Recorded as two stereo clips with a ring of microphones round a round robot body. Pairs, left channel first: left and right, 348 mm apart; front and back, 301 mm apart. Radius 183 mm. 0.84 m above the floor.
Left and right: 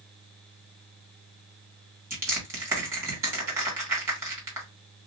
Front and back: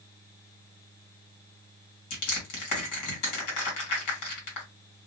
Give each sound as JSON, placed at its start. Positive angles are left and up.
{"t": 2.1, "sound": "crushing", "azimuth_deg": -10, "distance_m": 1.7}